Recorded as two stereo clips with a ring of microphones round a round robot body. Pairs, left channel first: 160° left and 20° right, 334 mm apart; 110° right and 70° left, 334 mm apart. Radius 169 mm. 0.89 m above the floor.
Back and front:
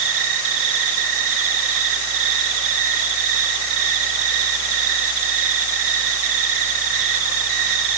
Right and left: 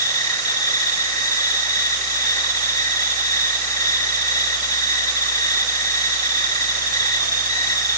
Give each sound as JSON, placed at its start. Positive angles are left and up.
{"t": 0.0, "sound": "an insect", "azimuth_deg": -35, "distance_m": 2.5}